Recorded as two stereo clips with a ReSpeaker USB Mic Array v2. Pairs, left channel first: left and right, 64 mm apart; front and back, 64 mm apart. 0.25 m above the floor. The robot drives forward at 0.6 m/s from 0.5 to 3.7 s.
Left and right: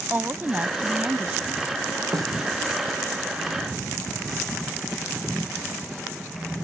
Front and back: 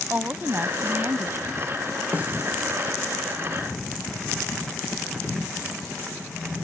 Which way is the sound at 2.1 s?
115° right.